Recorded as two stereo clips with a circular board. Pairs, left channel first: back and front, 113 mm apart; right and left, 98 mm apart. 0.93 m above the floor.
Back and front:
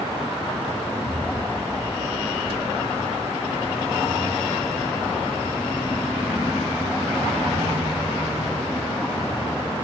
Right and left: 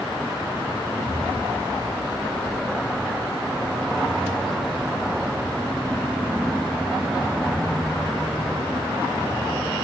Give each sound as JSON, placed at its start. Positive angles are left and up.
{"t": 0.9, "sound": "an explosion", "azimuth_deg": -95, "distance_m": 1.0}